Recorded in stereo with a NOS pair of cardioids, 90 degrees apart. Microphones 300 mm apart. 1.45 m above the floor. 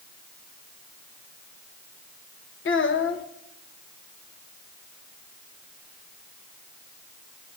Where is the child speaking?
40° left, 1.2 m.